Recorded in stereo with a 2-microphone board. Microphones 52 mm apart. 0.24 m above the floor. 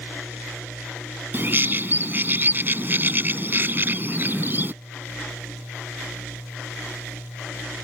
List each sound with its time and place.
1.3 s a bird: 40° right (ahead or behind)